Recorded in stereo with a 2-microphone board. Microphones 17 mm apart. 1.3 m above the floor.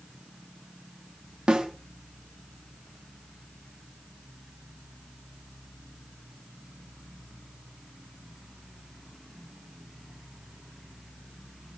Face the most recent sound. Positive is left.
turn(degrees=-85)